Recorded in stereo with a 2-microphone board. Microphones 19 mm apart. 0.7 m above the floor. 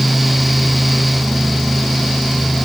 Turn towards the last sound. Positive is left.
No sound to turn to.